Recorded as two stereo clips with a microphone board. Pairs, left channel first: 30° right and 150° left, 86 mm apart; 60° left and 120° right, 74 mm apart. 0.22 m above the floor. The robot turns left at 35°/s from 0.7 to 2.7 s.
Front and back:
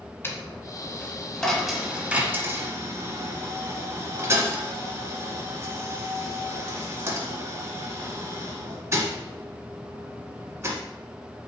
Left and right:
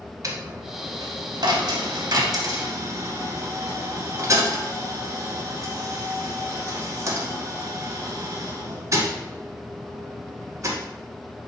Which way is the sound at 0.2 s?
90° right.